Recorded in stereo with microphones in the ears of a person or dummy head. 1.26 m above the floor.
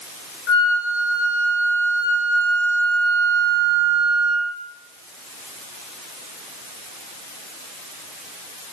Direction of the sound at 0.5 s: 65° left (ahead or behind).